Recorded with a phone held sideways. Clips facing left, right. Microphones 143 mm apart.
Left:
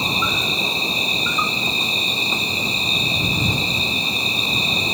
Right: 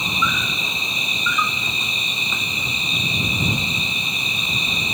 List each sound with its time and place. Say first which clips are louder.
0.0 s an insect: left 1 dB; 30° left (ahead or behind)